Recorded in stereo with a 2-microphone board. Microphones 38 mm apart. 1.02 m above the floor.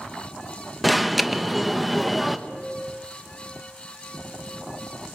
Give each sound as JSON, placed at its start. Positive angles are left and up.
{"t": 0.8, "sound": "an alarm", "side_deg": 0, "distance_m": 1.1}
{"t": 2.5, "sound": "a piano", "side_deg": -10, "distance_m": 9.5}